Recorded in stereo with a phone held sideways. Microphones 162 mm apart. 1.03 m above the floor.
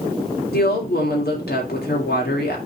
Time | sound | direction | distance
0.5 | a woman speaking | 80° left | 3 m